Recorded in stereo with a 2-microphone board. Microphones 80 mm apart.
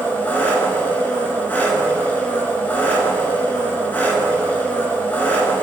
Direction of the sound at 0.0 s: 20° left (ahead or behind).